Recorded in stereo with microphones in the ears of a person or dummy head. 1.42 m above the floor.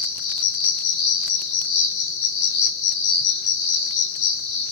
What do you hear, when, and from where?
0.0 s an insect: 60° left (ahead or behind), 2.0 m